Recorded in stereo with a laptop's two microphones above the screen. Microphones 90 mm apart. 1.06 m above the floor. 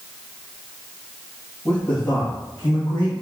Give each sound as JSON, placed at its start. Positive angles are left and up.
{"t": 1.6, "sound": "a man speaking", "side_deg": 25, "distance_m": 1.7}